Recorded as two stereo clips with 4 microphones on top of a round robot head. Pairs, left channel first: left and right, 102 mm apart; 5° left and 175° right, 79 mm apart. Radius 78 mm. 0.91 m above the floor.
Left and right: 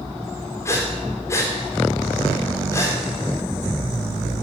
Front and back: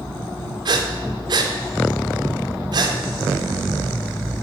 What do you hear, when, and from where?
0.7 s breathing: 160° left, 1.6 m